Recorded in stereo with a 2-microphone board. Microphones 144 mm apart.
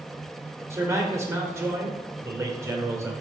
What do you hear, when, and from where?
0.7 s a man speaking: 20° right (ahead or behind), 2 m